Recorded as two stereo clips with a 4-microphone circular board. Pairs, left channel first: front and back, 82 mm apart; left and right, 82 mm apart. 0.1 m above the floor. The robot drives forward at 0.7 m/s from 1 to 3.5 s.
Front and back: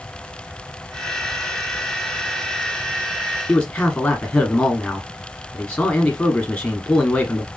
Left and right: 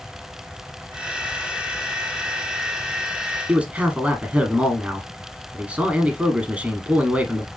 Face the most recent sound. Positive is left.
turn(degrees=-55)